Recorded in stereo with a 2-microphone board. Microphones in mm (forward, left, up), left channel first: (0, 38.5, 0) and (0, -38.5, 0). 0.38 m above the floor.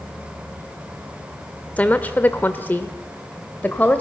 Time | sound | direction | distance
1.8 | a woman speaking | 20° left (ahead or behind) | 1.2 m